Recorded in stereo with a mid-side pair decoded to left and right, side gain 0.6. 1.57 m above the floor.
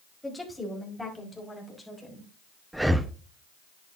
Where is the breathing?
5° right, 0.9 m.